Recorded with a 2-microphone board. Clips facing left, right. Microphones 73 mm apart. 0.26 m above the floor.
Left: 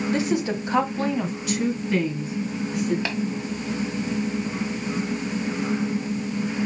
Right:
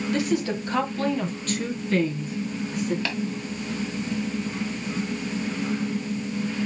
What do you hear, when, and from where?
0.1 s a woman speaking: 25° left (ahead or behind), 1.0 m; by 3.0 s 5° left (ahead or behind), 2.5 m
3.0 s tapping: 20° left (ahead or behind), 1.5 m